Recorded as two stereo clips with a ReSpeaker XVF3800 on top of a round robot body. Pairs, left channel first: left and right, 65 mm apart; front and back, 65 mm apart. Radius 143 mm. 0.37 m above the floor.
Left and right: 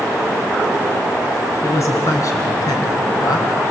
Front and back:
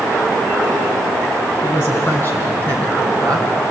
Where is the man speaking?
50° left, 5 m; by 3.5 s 80° left, 3.5 m.